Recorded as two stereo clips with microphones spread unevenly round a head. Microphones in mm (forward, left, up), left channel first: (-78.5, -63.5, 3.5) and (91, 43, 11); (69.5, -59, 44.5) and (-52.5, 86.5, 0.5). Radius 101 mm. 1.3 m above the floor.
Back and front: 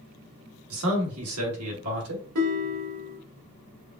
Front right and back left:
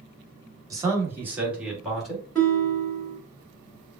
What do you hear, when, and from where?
0.7 s a man speaking: 55° left, 1.4 m; by 2.2 s 40° left, 2 m
2.4 s a guitar: 35° left, 2.0 m